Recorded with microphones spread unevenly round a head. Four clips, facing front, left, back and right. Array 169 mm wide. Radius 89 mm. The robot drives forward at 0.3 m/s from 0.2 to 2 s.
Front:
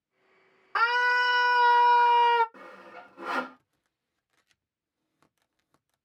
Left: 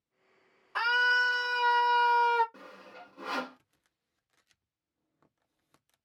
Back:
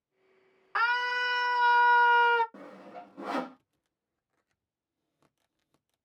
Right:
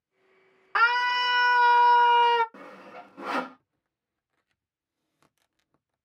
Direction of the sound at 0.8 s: 65° right.